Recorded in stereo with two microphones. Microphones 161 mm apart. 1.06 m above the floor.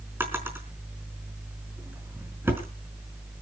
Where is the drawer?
15° right (ahead or behind), 4.5 m.